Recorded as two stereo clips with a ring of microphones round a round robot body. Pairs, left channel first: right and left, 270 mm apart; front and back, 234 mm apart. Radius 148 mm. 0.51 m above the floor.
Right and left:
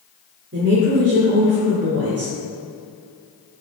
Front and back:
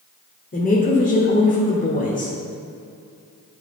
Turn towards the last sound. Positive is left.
turn(degrees=50)